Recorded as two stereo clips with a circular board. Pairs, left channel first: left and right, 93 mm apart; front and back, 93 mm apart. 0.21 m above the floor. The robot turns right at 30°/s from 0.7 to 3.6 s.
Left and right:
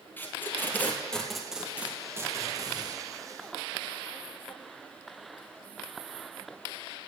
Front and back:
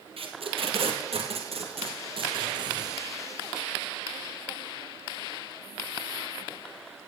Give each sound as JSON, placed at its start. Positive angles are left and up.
{"t": 0.2, "sound": "tape being pulled", "azimuth_deg": 160, "distance_m": 2.0}